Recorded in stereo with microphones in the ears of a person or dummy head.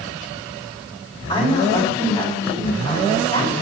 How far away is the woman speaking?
About 7 m.